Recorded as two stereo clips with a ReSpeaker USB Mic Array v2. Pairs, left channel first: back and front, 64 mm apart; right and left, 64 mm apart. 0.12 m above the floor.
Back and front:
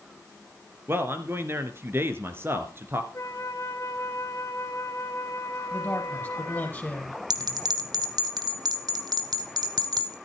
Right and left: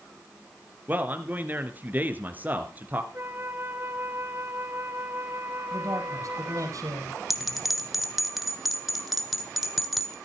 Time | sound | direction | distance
0.9 | a man speaking | 35° left | 2 m
3.1 | a flute | 140° left | 3 m
5.7 | a man speaking | 120° left | 4.5 m
7.3 | a bell | 5° left | 1.5 m